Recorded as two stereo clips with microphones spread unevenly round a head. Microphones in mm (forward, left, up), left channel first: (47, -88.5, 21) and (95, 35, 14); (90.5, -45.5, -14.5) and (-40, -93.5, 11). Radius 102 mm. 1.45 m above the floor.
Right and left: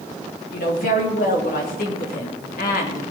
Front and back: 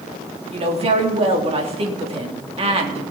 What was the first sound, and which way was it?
A woman speaking, 120° right.